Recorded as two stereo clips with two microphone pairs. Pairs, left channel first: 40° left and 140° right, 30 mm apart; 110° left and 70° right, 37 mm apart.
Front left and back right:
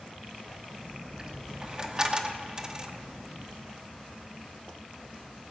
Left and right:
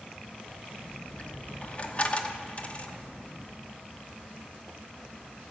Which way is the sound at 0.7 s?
160° left.